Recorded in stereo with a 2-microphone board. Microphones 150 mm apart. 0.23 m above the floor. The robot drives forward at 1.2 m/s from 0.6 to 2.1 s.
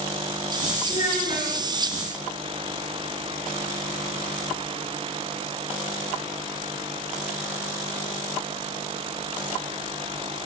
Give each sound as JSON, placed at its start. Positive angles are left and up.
{"t": 0.9, "sound": "a child speaking", "side_deg": 50, "distance_m": 2.5}